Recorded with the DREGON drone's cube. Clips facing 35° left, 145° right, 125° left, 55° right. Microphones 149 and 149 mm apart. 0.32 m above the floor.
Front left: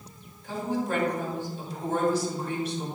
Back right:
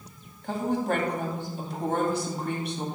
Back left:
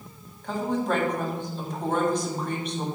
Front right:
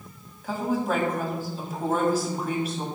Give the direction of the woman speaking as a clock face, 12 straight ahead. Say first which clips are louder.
Back right 2 dB, even; 5 o'clock.